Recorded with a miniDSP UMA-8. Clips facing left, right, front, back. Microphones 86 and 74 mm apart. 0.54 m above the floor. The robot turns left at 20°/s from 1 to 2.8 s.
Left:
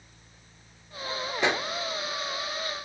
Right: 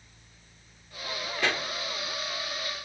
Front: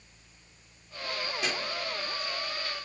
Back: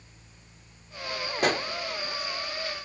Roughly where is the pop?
Behind left.